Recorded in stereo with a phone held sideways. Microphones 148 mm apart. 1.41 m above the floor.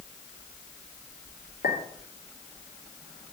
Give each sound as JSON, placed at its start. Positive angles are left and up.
{"t": 1.6, "sound": "a clink", "side_deg": 75, "distance_m": 3.0}